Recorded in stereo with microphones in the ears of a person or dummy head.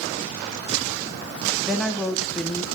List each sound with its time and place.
1.6 s a woman speaking: centre (ahead or behind), 0.7 m